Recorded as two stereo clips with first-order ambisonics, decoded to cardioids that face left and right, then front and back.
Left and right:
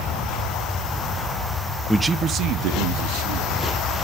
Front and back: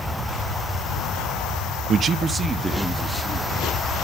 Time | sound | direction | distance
1.9 | a man speaking | 175° left | 0.5 m